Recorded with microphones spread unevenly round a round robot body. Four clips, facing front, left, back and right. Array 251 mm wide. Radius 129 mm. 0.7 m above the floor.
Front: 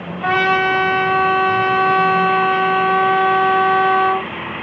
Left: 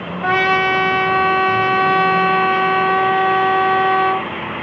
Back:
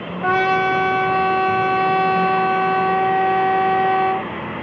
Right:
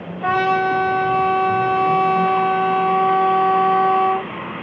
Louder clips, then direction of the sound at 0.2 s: Left 1 dB, front 1 dB; 150° right.